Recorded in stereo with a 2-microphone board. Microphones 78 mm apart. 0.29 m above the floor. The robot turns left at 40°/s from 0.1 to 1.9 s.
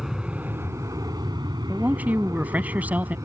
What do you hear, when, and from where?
0.0 s an aircraft: 5° right (ahead or behind); by 3.2 s 40° right (ahead or behind)
1.7 s a man speaking: 25° right (ahead or behind); by 3.1 s 20° right (ahead or behind)